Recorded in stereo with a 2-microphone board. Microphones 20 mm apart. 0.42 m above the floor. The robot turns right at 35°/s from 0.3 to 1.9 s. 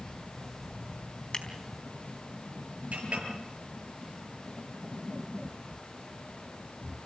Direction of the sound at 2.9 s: 80° right.